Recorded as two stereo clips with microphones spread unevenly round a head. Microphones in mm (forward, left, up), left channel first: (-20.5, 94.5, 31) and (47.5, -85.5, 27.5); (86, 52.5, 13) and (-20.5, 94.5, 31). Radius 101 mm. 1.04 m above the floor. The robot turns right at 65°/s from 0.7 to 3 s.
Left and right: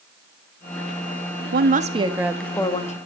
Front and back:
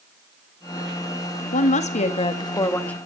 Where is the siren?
I don't hear a siren.